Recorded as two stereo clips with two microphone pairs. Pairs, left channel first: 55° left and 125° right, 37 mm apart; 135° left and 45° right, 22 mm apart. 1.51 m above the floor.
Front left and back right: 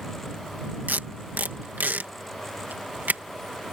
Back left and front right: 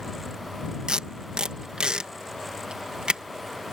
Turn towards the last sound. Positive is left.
turn(degrees=-95)